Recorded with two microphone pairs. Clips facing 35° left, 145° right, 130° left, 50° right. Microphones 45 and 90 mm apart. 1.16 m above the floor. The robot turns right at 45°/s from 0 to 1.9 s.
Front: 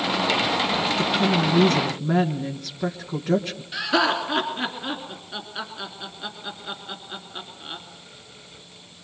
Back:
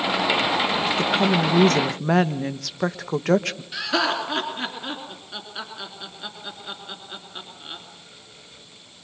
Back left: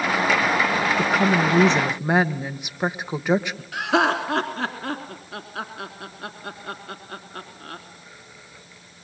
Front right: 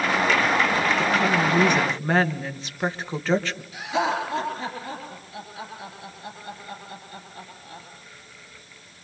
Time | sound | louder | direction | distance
1.0 | a woman speaking | back 2 dB, back left 2 dB | 165° left | 1.4 m
3.7 | laughter | front 2 dB, back left 4 dB | 120° left | 3 m